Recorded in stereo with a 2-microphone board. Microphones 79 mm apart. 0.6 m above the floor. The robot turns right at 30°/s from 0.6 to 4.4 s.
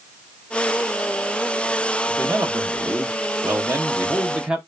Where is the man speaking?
95° right, 0.7 m; by 4.6 s 25° right, 0.7 m.